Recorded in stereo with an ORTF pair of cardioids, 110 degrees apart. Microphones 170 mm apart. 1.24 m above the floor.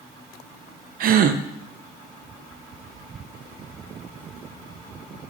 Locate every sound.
1.0 s a gasp: 55° right, 0.6 m